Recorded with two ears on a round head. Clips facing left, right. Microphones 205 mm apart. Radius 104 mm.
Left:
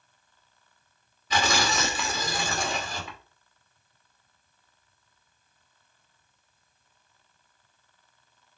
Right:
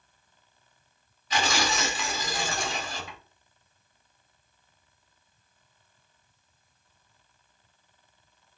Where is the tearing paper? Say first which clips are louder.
Left 2 dB; 65° left (ahead or behind), 2.5 m.